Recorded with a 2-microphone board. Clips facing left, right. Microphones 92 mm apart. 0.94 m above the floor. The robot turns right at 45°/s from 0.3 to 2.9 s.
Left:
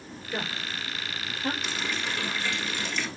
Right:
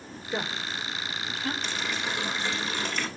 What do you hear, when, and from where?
0.3 s a woman speaking: 15° right (ahead or behind), 3.5 m; by 1.5 s 40° left (ahead or behind), 3.5 m
1.6 s a running tap: 170° left, 2 m; by 3.1 s 130° right, 2 m